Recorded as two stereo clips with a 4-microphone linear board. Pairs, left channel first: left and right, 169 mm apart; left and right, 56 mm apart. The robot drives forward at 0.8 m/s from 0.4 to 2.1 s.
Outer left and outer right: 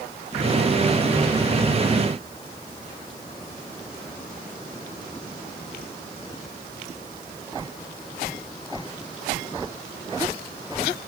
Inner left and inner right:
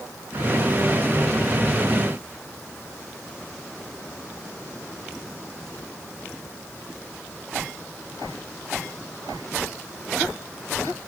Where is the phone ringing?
No phone ringing in this recording.